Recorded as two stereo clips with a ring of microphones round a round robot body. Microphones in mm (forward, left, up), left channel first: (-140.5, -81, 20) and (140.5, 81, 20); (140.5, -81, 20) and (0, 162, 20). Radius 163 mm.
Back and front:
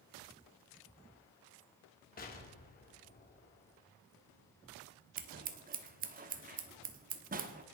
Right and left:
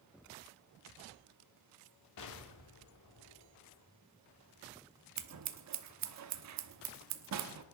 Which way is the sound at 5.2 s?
95° left.